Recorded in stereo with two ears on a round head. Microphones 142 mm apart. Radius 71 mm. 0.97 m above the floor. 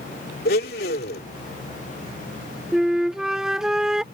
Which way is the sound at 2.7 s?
5° right (ahead or behind).